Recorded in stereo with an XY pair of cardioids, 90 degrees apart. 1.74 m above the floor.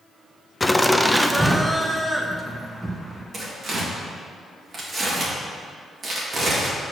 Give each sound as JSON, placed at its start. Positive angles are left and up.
{"t": 0.6, "sound": "laughter", "azimuth_deg": 15, "distance_m": 0.6}
{"t": 3.3, "sound": "tearing paper", "azimuth_deg": -45, "distance_m": 2.0}